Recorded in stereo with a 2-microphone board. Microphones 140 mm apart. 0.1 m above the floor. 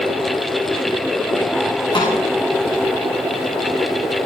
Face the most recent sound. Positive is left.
turn(degrees=35)  # may be behind; listen again after turning